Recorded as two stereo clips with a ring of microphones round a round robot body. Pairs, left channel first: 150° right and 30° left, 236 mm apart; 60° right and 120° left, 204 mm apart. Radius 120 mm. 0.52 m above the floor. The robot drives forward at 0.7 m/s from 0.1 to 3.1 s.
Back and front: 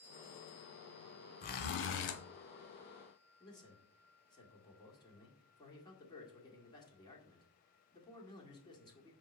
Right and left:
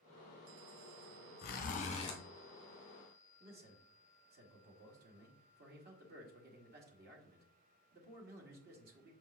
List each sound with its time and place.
1.4 s a zipper: 100° right, 0.9 m; by 2.2 s 130° right, 1.1 m
3.4 s a man speaking: 140° left, 1.7 m